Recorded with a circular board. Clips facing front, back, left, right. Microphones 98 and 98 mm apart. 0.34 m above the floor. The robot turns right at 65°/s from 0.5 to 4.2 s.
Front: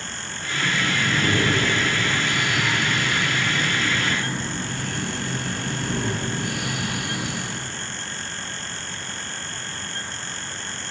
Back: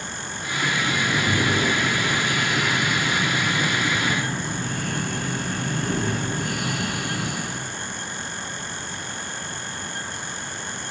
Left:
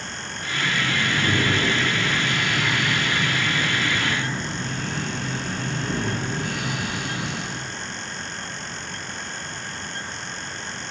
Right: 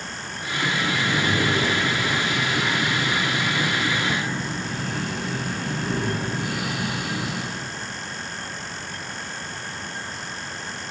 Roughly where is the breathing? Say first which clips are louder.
Even, right 1 dB; ahead right.